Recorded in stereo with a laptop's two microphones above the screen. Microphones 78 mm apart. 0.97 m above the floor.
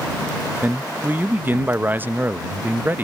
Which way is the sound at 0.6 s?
25° right (ahead or behind).